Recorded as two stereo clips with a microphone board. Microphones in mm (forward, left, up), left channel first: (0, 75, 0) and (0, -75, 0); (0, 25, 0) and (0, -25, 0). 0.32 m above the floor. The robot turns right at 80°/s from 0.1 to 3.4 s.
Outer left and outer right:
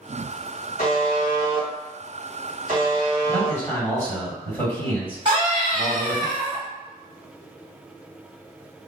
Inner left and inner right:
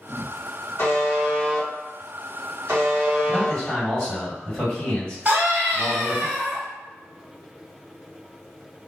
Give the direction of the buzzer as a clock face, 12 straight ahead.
9 o'clock.